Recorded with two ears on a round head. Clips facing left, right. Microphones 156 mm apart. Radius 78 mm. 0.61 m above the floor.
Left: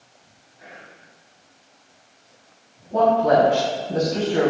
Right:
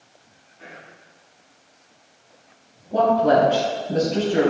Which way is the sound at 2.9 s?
50° right (ahead or behind).